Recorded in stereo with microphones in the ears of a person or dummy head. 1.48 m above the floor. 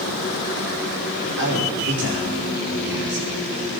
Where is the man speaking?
60° right (ahead or behind), 4 m.